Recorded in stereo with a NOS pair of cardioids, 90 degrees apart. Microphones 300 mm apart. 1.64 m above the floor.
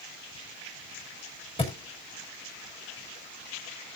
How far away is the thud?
About 6 m.